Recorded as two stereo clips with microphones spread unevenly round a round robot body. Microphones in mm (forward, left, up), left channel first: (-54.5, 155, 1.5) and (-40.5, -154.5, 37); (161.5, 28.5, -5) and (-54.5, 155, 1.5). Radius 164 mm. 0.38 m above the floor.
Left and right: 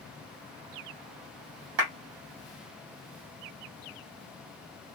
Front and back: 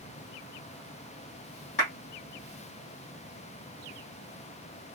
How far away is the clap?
About 1.4 m.